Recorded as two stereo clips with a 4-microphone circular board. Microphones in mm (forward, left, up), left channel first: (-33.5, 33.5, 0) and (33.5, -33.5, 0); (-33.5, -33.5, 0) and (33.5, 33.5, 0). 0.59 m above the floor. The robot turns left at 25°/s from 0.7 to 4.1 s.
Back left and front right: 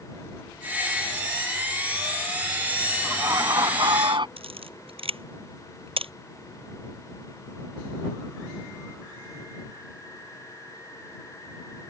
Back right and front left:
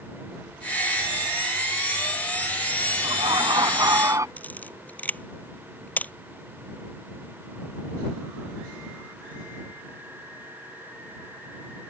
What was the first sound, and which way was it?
Laughter, 15° left.